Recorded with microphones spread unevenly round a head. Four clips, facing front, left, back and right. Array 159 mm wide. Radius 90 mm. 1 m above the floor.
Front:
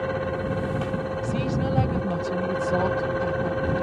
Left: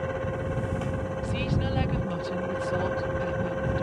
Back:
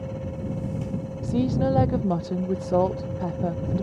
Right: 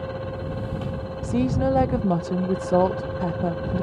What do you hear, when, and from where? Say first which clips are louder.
0.0 s a fan: left 1 dB, front 6 dB; 10° left
1.2 s a woman speaking: right 12 dB, back 7 dB; 115° right